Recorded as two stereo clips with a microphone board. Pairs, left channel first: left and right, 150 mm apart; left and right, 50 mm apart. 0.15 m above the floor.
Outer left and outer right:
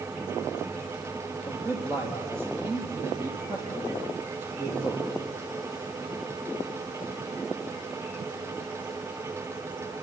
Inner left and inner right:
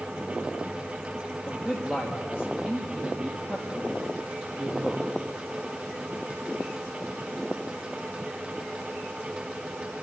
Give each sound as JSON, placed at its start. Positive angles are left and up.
{"t": 1.4, "sound": "a man speaking", "side_deg": -15, "distance_m": 5.0}